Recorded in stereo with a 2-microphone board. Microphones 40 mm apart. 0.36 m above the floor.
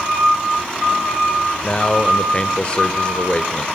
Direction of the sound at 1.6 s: 25° left (ahead or behind).